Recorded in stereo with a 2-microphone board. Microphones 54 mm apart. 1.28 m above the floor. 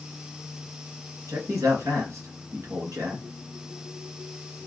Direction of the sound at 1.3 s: 80° right.